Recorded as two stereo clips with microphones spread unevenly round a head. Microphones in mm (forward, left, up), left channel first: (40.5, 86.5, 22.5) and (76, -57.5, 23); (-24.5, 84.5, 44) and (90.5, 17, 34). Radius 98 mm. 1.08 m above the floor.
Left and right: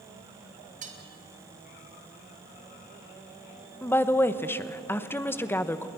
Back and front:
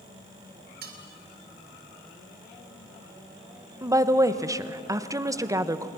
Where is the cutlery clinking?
40° right, 2.5 m.